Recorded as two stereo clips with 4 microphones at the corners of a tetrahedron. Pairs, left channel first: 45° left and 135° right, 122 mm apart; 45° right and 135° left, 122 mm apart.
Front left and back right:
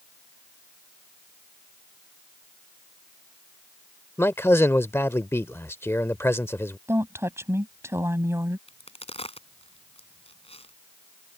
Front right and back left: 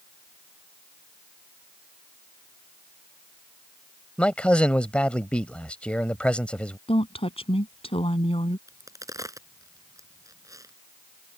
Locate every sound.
4.2 s a man speaking: 20° left
6.9 s a woman speaking: 70° right
8.7 s a crack: 75° left